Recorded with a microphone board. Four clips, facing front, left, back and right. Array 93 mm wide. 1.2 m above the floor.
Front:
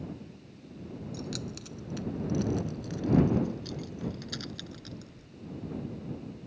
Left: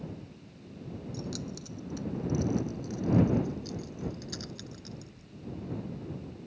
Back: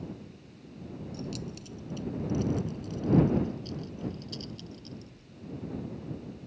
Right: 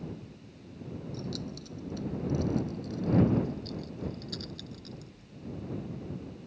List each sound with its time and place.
1.1 s keys jangling: 10° left; by 5.3 s 15° left